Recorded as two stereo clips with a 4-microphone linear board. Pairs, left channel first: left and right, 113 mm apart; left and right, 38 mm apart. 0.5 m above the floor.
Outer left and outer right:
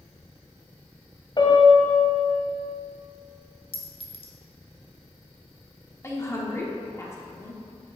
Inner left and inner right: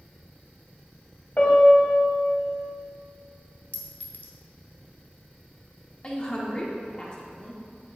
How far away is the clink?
About 0.9 m.